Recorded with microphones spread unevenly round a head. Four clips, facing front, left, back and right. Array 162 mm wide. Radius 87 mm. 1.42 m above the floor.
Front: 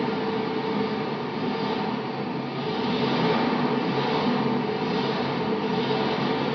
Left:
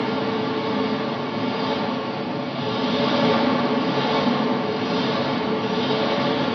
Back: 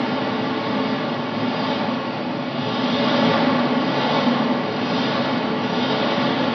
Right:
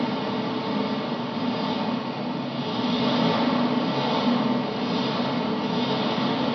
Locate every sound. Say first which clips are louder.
0.0 s an engine running: left 3 dB, back 4 dB; 165° left, 1.6 m